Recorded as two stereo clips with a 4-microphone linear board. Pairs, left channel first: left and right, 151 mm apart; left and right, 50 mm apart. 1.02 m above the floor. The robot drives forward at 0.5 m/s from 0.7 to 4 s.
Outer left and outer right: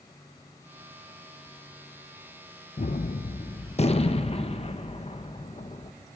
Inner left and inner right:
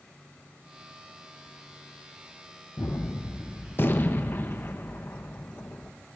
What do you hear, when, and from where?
2.8 s a gunshot: 50° left (ahead or behind), 0.6 m; by 5.9 s 40° left (ahead or behind), 0.8 m